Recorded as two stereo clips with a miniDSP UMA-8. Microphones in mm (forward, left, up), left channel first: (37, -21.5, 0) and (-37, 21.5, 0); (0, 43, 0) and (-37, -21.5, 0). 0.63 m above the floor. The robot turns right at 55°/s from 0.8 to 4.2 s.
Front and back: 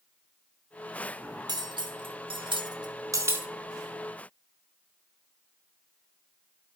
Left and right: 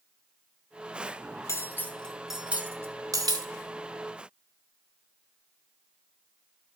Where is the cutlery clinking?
110° left, 0.7 m; by 3.5 s 140° right, 0.7 m.